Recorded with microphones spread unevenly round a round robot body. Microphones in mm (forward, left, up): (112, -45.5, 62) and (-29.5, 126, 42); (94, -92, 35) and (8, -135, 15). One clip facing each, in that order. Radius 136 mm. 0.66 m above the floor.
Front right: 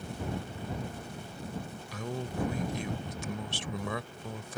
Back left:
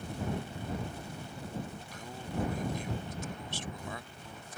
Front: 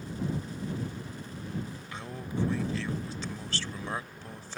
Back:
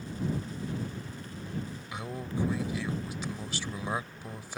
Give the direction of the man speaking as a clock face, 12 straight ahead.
3 o'clock.